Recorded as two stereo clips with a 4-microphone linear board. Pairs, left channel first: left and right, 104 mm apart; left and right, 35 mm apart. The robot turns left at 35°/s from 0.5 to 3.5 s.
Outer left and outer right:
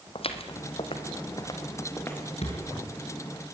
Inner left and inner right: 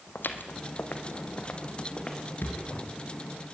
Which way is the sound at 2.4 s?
80° left.